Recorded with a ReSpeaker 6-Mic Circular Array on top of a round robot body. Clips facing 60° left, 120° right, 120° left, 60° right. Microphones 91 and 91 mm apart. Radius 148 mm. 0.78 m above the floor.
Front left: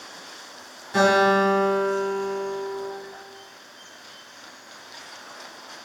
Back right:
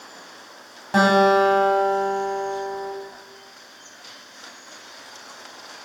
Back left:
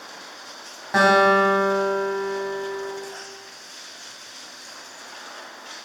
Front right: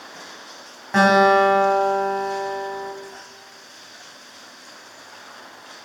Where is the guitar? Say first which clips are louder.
Back right 2 dB, front right 2 dB; 155° right, 2.5 m.